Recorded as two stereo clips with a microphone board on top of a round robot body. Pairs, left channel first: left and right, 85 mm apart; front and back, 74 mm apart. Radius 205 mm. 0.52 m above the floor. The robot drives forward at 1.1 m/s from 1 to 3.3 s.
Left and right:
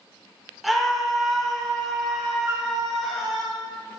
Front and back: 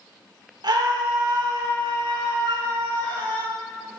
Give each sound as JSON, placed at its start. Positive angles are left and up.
{"t": 0.6, "sound": "a scream", "azimuth_deg": 180, "distance_m": 3.0}
{"t": 2.5, "sound": "a flute", "azimuth_deg": -155, "distance_m": 0.6}